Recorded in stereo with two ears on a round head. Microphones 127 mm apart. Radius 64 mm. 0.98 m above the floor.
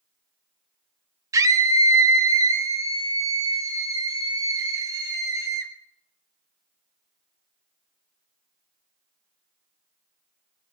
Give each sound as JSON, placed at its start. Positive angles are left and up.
{"t": 1.3, "sound": "a scream", "side_deg": -25, "distance_m": 1.5}